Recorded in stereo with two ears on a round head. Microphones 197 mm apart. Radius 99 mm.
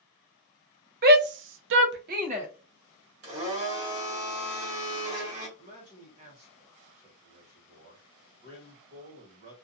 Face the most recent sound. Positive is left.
turn(degrees=-30)  # may be behind; listen again after turning